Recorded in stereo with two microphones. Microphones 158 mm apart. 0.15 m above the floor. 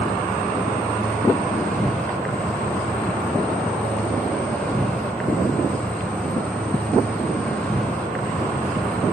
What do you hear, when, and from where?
0.0 s an insect: 5° left (ahead or behind), 3 m